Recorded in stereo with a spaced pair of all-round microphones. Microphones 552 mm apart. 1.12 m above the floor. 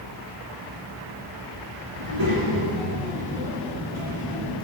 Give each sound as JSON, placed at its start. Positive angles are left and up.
{"t": 2.0, "sound": "a child speaking", "side_deg": -75, "distance_m": 3.5}